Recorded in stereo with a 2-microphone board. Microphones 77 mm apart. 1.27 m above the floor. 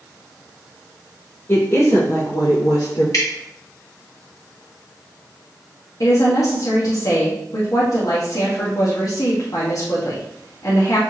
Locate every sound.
1.5 s a woman speaking: 30° left (ahead or behind), 1.9 m; by 3.0 s 80° left, 3 m
3.1 s dripping: 50° left (ahead or behind), 2.5 m
6.0 s a woman speaking: 50° left (ahead or behind), 1.6 m